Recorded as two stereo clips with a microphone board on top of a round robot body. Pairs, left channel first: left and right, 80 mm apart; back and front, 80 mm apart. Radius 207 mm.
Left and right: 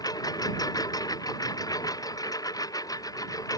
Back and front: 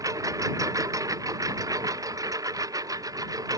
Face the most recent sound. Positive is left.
turn(degrees=45)